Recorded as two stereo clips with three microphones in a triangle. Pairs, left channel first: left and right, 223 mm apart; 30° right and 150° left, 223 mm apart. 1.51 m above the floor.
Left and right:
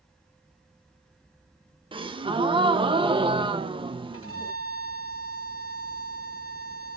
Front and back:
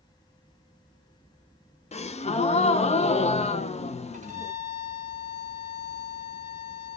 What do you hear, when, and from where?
1.9 s a gasp: 45° right, 0.6 m
4.1 s a violin: 95° left, 1.3 m